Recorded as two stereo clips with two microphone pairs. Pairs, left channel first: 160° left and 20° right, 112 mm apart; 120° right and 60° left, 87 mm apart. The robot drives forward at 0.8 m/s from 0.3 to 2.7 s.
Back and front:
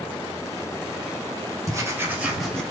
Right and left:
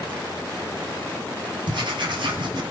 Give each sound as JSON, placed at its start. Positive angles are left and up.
{"t": 1.7, "sound": "writing", "azimuth_deg": 40, "distance_m": 1.2}